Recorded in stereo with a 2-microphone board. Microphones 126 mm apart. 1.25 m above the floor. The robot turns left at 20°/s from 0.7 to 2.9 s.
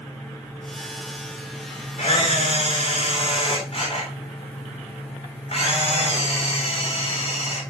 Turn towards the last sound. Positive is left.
turn(degrees=55)  # may be behind; listen again after turning